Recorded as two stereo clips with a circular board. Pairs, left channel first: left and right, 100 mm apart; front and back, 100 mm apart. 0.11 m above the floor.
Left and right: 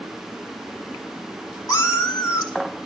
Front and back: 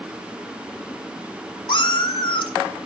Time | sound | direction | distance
1.7 | a cat meowing | 35° left | 1.7 m